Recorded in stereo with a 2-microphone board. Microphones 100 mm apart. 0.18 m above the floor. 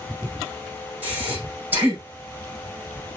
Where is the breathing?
20° right (ahead or behind), 6 m.